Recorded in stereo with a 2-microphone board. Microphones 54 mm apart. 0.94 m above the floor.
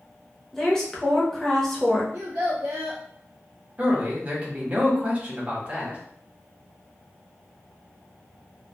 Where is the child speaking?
65° right (ahead or behind), 0.6 m.